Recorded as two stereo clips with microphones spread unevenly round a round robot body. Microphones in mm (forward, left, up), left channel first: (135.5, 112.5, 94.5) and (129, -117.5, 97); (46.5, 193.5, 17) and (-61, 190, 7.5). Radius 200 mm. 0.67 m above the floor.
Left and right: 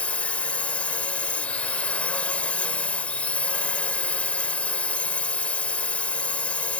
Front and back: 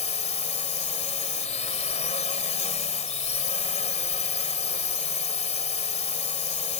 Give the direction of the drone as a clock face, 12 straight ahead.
12 o'clock.